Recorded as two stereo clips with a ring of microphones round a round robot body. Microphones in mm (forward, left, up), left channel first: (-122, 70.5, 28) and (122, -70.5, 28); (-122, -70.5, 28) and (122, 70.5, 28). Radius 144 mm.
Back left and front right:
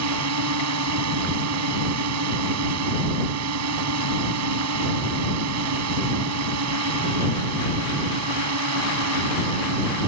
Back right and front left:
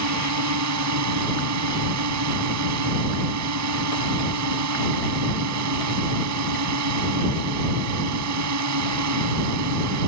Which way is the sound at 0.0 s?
Straight ahead.